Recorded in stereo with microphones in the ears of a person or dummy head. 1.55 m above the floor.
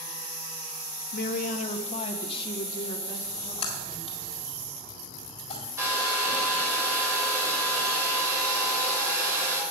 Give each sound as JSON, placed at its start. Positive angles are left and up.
{"t": 1.1, "sound": "a woman speaking", "side_deg": 60, "distance_m": 0.8}
{"t": 3.2, "sound": "a splash", "side_deg": 45, "distance_m": 1.9}
{"t": 5.8, "sound": "a hair dryer", "side_deg": -10, "distance_m": 3.0}